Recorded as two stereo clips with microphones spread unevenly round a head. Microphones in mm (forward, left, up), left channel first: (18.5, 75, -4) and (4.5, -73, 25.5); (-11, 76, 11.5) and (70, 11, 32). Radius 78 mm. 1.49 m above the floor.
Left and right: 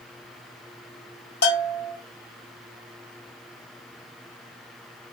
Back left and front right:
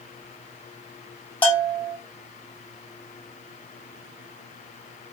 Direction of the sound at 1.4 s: 60° left.